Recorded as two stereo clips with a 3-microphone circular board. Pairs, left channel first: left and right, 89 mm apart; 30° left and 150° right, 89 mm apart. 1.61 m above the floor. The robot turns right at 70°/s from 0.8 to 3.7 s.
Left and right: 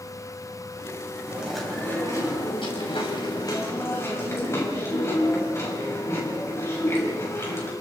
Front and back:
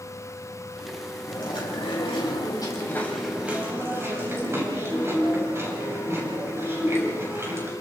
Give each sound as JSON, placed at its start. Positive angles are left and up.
{"t": 1.3, "sound": "chewing", "azimuth_deg": -20, "distance_m": 7.0}